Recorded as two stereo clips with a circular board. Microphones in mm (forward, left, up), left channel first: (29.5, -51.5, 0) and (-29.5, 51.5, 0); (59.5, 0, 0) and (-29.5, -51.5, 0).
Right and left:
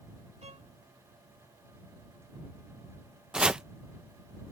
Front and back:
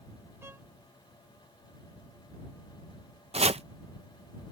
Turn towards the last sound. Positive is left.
turn(degrees=-155)